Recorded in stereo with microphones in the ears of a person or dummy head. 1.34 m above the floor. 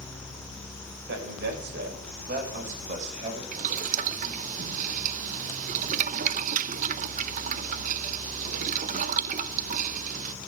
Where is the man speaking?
65° right (ahead or behind), 6.5 m; by 3.4 s 35° right (ahead or behind), 6.5 m.